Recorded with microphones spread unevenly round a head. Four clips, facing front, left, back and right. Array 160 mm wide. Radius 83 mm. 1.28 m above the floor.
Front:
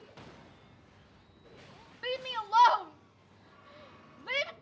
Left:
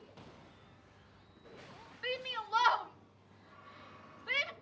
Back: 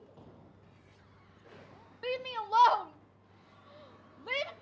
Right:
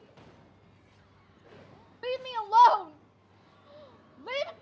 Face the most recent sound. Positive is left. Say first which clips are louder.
# right 7 dB, even
turn(degrees=-100)